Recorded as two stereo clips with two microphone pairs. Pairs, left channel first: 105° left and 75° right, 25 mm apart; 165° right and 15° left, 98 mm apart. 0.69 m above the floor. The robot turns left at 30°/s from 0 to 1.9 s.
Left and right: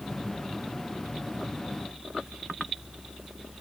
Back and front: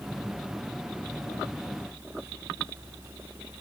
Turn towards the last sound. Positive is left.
No sound to turn to.